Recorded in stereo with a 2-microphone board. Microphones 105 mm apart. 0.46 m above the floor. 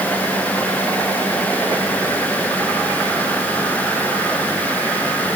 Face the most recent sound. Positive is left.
No sound to turn to.